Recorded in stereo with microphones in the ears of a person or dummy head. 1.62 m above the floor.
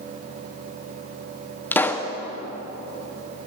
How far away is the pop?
About 0.7 m.